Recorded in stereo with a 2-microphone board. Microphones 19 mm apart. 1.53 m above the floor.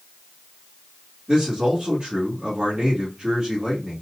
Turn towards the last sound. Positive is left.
turn(degrees=-50)  # may be behind; listen again after turning